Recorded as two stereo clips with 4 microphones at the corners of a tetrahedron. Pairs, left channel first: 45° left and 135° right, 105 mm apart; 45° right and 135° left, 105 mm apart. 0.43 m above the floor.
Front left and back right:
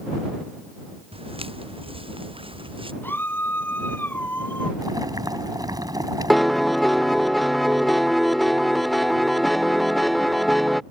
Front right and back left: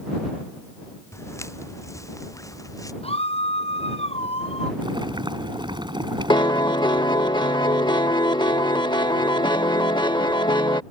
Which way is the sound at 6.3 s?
45° right.